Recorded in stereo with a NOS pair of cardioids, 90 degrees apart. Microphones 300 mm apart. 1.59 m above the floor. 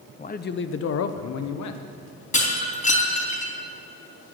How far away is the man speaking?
About 0.8 m.